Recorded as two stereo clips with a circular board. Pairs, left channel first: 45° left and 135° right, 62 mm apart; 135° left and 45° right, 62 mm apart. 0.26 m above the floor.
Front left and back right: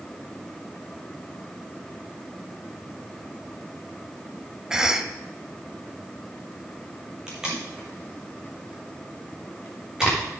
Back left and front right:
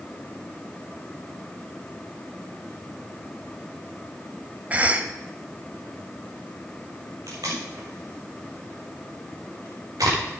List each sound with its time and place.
4.7 s a cough: 70° right, 1.0 m
7.3 s tape being pulled: 55° right, 4.5 m